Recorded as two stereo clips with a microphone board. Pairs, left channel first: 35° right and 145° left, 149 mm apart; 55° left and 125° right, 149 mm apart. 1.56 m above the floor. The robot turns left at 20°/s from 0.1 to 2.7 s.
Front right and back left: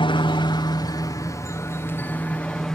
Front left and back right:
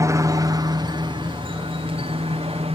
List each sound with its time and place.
0.0 s a helicopter: 65° right; by 2.7 s 120° right